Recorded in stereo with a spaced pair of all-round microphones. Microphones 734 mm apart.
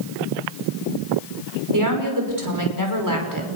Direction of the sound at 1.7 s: 25° right (ahead or behind).